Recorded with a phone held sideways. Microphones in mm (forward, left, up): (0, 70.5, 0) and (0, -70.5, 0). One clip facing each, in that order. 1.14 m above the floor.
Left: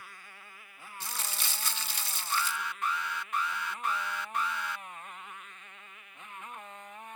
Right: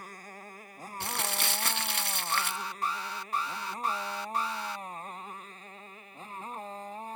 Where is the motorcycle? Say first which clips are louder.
Right 7 dB; 40° right (ahead or behind); by 7.2 s 35° right (ahead or behind).